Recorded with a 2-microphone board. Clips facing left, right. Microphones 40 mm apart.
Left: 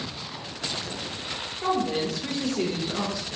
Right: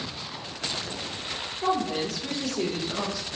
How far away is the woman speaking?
About 0.6 m.